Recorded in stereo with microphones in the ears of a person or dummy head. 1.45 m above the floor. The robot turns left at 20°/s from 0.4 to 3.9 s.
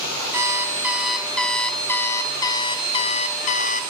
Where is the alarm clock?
165° right, 0.8 m; by 3.9 s 125° left, 0.8 m.